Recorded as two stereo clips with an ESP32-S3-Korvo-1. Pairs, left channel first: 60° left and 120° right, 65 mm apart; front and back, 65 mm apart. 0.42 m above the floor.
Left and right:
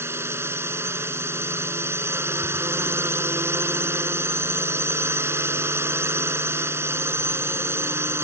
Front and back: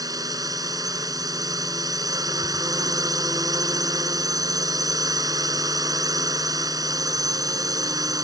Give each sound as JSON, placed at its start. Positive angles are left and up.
{"t": 0.0, "sound": "a drone", "azimuth_deg": -165}